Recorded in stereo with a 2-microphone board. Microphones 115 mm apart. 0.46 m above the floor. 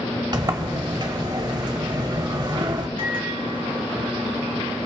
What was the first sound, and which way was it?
A sliding door, 40° right (ahead or behind).